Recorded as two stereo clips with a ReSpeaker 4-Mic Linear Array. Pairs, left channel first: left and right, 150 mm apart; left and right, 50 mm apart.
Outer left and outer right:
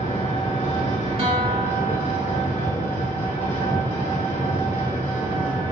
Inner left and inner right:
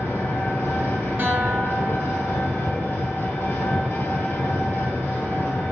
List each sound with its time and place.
0.0 s an engine running: 50° left (ahead or behind), 1.2 m
1.2 s a guitar: 40° right (ahead or behind), 0.6 m